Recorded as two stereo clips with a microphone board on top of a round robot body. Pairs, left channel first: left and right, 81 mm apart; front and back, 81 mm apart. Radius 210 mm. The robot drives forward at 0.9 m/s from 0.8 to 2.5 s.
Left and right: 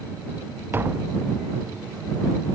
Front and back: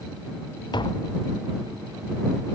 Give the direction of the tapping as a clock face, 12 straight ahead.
1 o'clock.